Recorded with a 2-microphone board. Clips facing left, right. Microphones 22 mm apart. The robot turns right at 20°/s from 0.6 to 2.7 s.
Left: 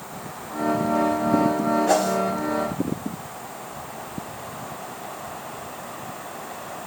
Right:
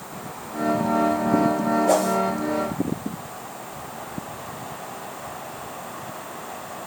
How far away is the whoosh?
About 3 m.